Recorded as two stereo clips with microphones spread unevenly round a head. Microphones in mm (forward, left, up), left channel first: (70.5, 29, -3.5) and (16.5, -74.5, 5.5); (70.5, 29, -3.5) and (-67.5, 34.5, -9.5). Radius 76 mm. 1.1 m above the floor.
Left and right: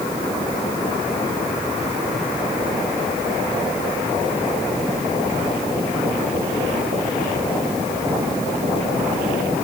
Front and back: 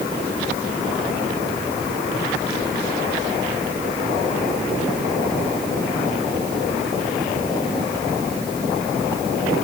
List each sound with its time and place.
Only background noise.